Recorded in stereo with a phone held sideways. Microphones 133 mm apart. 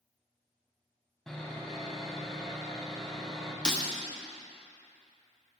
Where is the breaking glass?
5° left (ahead or behind), 1.4 m.